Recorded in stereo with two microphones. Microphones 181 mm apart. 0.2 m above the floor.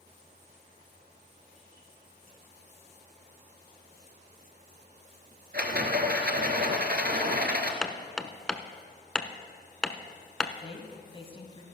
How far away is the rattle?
About 1.4 m.